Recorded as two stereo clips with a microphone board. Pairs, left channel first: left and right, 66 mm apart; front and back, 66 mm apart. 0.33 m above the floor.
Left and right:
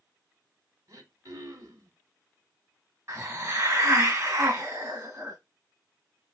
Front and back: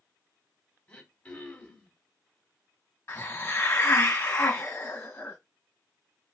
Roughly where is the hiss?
Ahead right.